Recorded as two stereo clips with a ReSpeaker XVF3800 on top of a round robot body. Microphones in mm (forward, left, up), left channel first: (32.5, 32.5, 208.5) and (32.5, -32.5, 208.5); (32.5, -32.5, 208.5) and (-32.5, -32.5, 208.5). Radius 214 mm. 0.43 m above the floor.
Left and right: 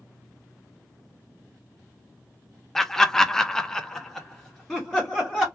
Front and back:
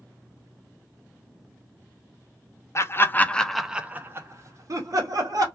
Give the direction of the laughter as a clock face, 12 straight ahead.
12 o'clock.